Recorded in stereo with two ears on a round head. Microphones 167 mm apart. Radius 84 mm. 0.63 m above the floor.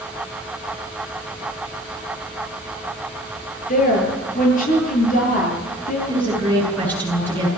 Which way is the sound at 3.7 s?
50° left (ahead or behind).